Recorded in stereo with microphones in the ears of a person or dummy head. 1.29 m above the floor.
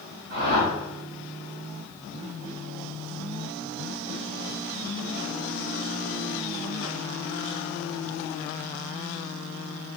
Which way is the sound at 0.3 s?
60° right (ahead or behind).